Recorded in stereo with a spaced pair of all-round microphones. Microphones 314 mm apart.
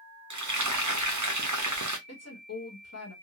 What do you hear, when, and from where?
0.3 s frying: 65° right (ahead or behind), 0.7 m
2.1 s a woman speaking: 55° left (ahead or behind), 1.3 m